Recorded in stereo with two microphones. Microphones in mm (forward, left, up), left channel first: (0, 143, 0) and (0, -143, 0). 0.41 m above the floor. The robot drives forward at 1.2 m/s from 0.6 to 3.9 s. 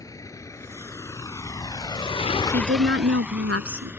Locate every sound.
0.0 s a vehicle: 10° left (ahead or behind); by 4.0 s 5° right (ahead or behind)
2.5 s a woman speaking: 40° right (ahead or behind); by 3.9 s 55° right (ahead or behind)